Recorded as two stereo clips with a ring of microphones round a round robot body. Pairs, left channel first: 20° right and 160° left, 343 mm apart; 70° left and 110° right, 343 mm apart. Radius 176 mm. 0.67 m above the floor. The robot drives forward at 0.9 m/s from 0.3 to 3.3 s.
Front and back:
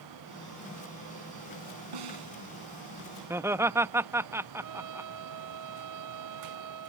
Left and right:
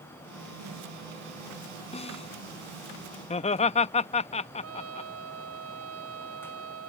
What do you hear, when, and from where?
1.9 s a snare drum: 140° left
3.3 s laughter: 90° left
4.6 s a trumpet: 165° right